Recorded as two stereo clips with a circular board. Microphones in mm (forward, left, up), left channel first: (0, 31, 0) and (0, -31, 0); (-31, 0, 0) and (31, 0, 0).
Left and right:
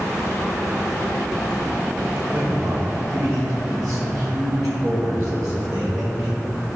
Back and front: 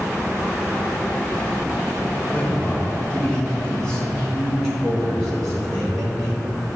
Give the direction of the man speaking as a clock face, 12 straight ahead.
4 o'clock.